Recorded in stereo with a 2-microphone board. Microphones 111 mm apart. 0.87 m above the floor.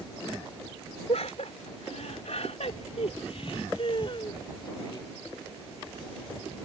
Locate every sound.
1.1 s laughter: 70° left (ahead or behind); by 5.1 s 40° left (ahead or behind)